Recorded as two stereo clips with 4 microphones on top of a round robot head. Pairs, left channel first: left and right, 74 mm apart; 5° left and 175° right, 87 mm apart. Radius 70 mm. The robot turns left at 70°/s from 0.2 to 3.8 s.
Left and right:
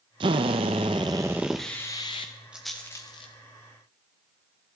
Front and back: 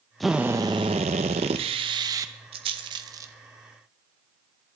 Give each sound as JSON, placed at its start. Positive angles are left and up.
{"t": 0.2, "sound": "a drill", "azimuth_deg": -85, "distance_m": 1.0}
{"t": 2.5, "sound": "a rattle", "azimuth_deg": -170, "distance_m": 1.0}